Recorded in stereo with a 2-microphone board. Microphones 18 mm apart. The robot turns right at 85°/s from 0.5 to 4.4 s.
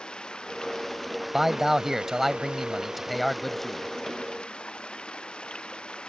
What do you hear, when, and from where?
0.0 s running water: 115° left; by 6.1 s 90° left
1.3 s a man speaking: 20° right (ahead or behind); by 3.9 s 20° left (ahead or behind)